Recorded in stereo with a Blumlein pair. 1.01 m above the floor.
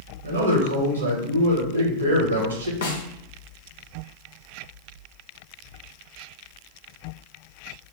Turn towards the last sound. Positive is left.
turn(degrees=55)